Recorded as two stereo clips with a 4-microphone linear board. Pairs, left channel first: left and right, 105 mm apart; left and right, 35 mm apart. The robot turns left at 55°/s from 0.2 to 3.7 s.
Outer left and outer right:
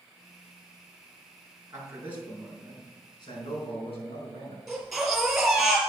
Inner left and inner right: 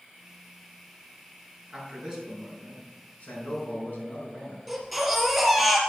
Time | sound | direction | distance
1.7 | a man speaking | 140° right | 4.5 m
4.7 | a baby crying | centre (ahead or behind) | 4.5 m